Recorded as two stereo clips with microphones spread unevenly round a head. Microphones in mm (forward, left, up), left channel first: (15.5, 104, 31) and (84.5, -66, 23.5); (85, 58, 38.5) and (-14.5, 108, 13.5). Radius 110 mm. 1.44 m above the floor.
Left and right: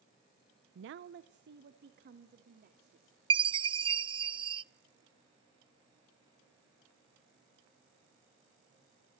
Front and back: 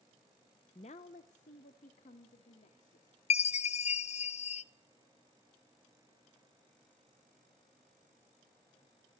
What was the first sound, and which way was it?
A woman speaking, 65° right.